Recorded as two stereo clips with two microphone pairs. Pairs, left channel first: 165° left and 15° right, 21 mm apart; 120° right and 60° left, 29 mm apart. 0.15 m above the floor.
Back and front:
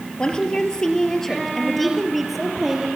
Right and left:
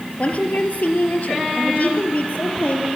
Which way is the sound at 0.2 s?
155° right.